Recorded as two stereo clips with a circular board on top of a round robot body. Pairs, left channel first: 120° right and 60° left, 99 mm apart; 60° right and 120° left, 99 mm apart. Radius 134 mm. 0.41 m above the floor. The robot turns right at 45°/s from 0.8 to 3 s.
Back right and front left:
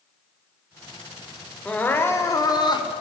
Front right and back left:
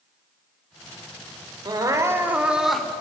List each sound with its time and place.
1.6 s crying: 160° left, 2.5 m; by 2.9 s 140° right, 2.5 m